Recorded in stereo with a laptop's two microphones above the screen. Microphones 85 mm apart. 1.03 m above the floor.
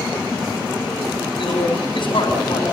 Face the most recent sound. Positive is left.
turn(degrees=65)  # may be behind; listen again after turning